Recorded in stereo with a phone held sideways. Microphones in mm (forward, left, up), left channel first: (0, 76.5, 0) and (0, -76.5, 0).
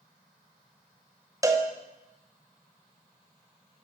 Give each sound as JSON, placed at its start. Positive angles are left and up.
{"t": 1.4, "sound": "a cowbell", "side_deg": -20, "distance_m": 0.8}